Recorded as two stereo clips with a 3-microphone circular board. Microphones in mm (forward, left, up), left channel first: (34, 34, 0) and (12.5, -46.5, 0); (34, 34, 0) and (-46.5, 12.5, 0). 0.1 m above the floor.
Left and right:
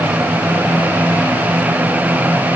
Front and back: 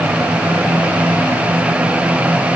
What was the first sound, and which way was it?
Only background noise.